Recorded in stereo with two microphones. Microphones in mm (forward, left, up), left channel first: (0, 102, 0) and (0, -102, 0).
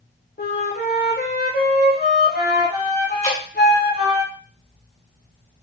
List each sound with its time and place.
0.4 s a flute: 50° left (ahead or behind), 1.3 m
3.2 s dripping: 30° left (ahead or behind), 2 m